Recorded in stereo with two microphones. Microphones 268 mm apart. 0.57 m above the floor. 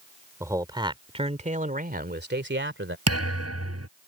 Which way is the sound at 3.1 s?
60° right (ahead or behind).